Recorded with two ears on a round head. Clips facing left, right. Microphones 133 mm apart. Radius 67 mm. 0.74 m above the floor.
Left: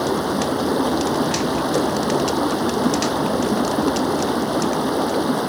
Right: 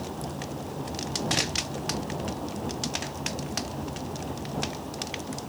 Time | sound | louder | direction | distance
0.0 | running water | left 15 dB | 85° left | ?